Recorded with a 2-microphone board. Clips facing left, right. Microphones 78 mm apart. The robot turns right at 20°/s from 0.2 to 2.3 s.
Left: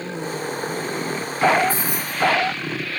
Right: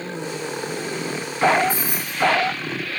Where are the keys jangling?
20° right (ahead or behind), 1.5 m; by 2.2 s 25° right (ahead or behind), 1.5 m.